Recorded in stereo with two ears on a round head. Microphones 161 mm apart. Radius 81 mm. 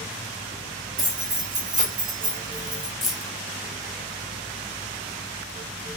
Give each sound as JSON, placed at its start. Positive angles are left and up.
{"t": 1.0, "sound": "keys jangling", "side_deg": -50, "distance_m": 1.4}
{"t": 3.0, "sound": "keys jangling", "side_deg": 0, "distance_m": 0.6}